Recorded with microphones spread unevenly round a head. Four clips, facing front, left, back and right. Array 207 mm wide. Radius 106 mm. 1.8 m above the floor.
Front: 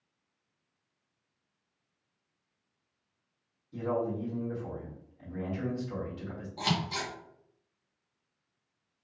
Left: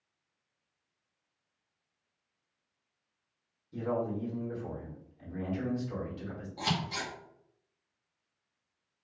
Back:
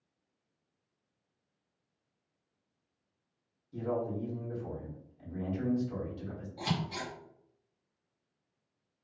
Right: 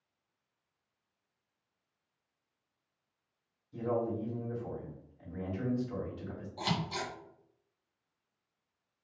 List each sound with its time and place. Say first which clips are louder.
3.7 s a man speaking: even, front 2 dB; 65° left, 1.6 m
6.6 s scissors: left 1 dB, front 3 dB; 10° left, 1.2 m